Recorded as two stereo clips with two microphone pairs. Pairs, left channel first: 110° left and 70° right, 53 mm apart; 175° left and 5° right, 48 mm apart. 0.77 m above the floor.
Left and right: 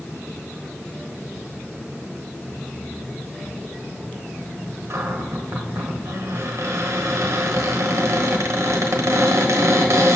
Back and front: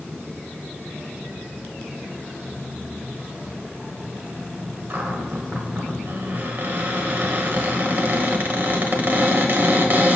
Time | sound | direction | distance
4.9 | a cupboard door | 50° right | 1.2 m